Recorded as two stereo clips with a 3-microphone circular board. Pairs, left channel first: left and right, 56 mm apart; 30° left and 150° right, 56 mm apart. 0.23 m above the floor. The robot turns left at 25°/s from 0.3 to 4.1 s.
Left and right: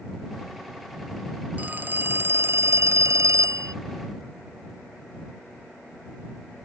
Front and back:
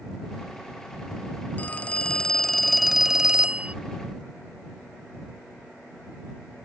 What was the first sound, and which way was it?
A phone ringing, 30° right.